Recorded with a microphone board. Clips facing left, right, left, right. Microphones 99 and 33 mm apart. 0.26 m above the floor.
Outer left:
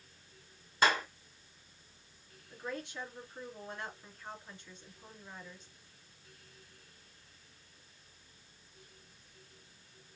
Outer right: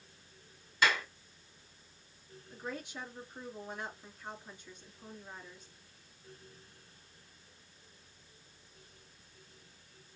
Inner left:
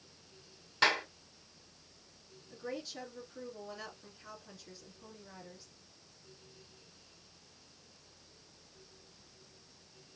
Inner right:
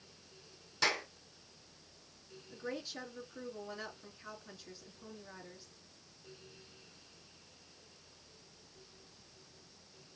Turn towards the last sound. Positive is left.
turn(degrees=-15)  # may be behind; listen again after turning